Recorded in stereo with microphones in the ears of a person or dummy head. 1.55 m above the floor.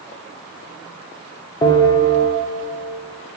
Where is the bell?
25° left (ahead or behind), 0.7 m.